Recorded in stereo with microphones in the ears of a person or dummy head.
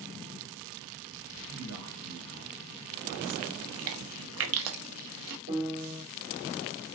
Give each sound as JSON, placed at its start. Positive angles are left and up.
{"t": 1.5, "sound": "a man speaking", "side_deg": -75, "distance_m": 1.9}
{"t": 3.6, "sound": "chewing", "side_deg": -80, "distance_m": 0.6}
{"t": 5.5, "sound": "a piano", "side_deg": -45, "distance_m": 3.0}